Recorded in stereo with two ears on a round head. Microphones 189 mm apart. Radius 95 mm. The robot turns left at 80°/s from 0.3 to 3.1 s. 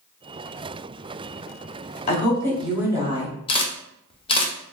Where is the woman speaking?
50° left, 1.0 m; by 3.3 s 35° right, 1.0 m.